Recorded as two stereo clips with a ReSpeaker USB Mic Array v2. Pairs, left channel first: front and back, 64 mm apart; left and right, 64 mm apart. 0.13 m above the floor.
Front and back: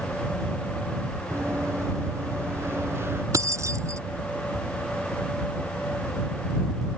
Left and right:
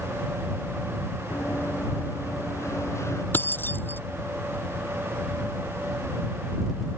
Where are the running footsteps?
135° left; by 3.2 s 130° left.